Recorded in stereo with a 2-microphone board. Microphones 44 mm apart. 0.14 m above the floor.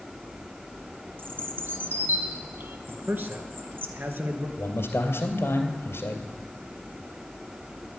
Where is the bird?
55° right (ahead or behind), 1.6 m.